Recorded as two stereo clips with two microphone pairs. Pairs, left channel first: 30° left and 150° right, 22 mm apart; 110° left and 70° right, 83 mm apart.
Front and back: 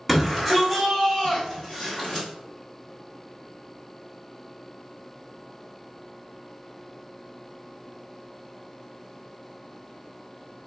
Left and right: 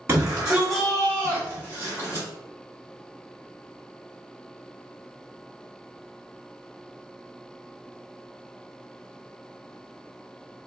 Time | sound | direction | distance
0.1 | a shout | 65° right | 1.7 m